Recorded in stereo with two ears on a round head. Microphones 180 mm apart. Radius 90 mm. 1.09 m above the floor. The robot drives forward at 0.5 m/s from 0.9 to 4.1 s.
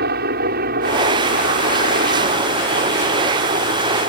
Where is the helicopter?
50° right (ahead or behind); by 4.1 s 35° right (ahead or behind).